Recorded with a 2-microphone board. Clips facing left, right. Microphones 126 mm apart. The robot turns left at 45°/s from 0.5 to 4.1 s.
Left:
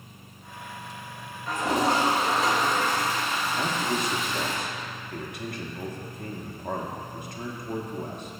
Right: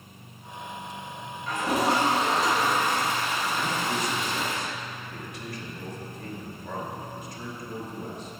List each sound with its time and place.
1.5 s a toilet flushing: 45° left, 2 m; by 4.6 s 75° right, 2 m
3.6 s a man speaking: 45° left (ahead or behind), 1.2 m; by 8.4 s 60° left (ahead or behind), 1.2 m